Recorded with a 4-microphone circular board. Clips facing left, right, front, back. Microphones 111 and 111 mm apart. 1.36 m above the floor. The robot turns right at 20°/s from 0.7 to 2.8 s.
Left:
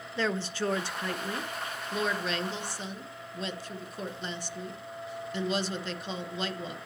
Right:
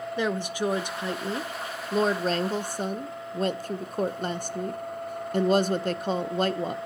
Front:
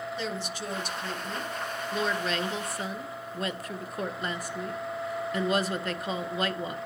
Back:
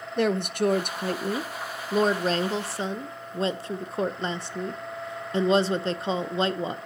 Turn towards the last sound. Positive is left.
turn(degrees=-120)